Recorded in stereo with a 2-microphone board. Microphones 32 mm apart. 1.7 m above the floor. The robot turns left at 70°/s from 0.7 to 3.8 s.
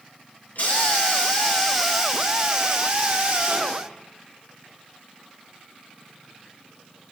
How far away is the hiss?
About 1.7 m.